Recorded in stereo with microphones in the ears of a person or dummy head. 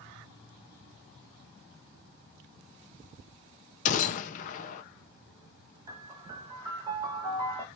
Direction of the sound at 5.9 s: 25° right (ahead or behind).